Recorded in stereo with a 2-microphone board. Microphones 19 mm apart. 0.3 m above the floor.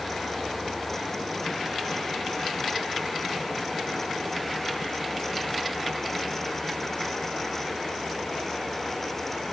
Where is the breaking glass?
No breaking glass in this recording.